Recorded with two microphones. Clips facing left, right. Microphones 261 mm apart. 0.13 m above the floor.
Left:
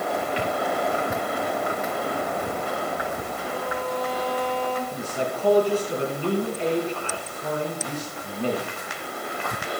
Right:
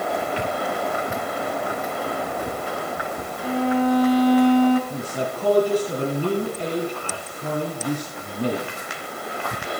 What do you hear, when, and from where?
3.4 s a violin: 80° right, 0.9 m
4.9 s a man speaking: 40° right (ahead or behind), 2.5 m